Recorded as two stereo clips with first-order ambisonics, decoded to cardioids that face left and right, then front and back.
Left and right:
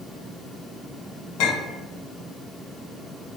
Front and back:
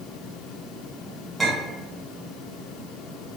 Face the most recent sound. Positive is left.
turn(degrees=95)